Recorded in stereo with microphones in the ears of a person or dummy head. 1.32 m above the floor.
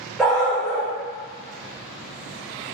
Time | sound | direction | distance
0.2 | a dog barking | 5° right (ahead or behind) | 1.1 m